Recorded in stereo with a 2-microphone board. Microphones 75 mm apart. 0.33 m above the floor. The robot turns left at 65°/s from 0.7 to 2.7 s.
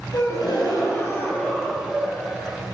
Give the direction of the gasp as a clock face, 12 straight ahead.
10 o'clock.